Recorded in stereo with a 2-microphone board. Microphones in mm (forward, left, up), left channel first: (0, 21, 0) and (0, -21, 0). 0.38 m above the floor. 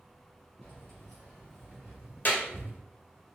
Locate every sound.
0.6 s keys jangling: 15° left (ahead or behind), 2.0 m; by 2.8 s 40° right (ahead or behind), 0.9 m
2.2 s a clap: 45° left (ahead or behind), 0.9 m